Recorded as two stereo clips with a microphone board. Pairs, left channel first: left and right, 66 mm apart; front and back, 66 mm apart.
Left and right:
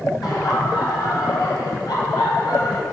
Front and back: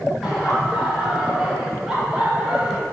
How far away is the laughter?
About 3.5 m.